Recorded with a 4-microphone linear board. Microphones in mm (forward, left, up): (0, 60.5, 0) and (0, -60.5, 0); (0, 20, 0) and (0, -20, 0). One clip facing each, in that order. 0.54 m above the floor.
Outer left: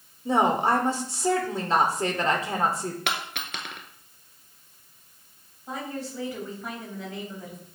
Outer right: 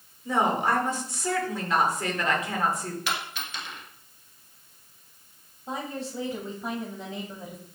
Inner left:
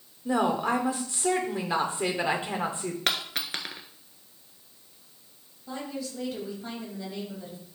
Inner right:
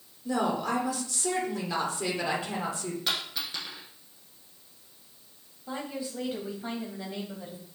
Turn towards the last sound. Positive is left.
turn(degrees=-25)  # may be behind; listen again after turning